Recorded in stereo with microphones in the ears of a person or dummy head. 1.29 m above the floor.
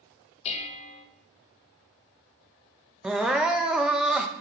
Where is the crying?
Centre (ahead or behind), 0.5 m.